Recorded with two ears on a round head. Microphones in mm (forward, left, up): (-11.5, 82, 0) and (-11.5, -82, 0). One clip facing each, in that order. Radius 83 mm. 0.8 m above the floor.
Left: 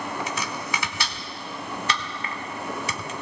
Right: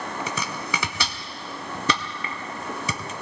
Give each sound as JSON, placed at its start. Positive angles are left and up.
{"t": 0.3, "sound": "chopping", "side_deg": -75, "distance_m": 1.2}